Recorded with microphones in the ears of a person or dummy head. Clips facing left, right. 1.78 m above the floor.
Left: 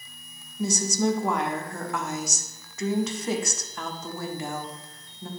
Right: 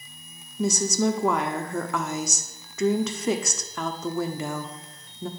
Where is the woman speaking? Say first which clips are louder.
Right 2 dB; 65° right (ahead or behind), 0.9 m.